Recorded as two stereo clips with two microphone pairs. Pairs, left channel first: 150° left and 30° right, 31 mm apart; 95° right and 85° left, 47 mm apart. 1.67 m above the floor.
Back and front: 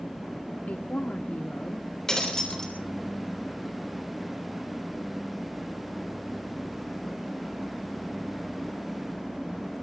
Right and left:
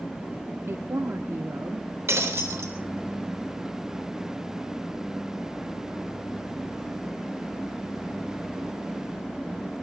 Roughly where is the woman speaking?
Behind left.